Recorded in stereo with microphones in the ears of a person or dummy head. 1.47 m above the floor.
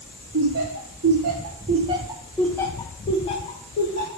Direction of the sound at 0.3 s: 80° right.